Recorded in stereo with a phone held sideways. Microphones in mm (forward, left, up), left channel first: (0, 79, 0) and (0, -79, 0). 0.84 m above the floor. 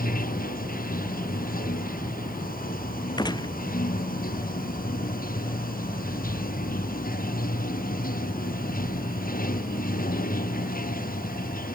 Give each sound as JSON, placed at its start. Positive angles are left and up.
{"t": 0.0, "sound": "running water", "side_deg": 65}
{"t": 3.2, "sound": "a gunshot", "side_deg": 25}